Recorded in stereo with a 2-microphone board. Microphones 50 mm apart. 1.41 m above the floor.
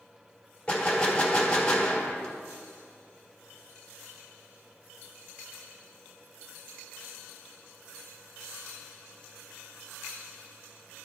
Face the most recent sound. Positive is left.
turn(degrees=20)  # may be behind; listen again after turning